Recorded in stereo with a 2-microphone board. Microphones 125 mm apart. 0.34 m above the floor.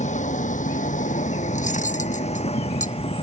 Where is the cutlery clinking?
80° left.